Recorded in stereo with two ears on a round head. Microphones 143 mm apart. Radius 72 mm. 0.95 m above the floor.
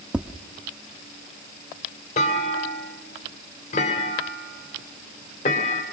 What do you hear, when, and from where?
0.1 s tapping: 5° right (ahead or behind), 0.7 m
2.2 s a clunk: 45° left (ahead or behind), 2.5 m